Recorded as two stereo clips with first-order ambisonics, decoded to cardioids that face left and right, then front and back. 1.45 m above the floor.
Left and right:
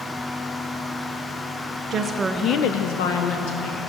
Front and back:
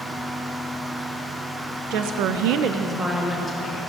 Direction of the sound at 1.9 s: 155° right.